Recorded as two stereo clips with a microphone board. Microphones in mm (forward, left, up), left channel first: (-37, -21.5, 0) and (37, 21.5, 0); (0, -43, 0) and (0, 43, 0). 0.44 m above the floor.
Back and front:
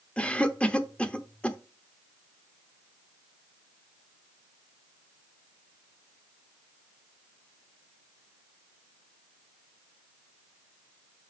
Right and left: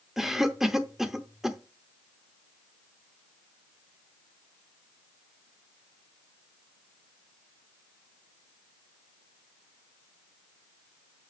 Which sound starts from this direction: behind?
A cough, at 0.2 s.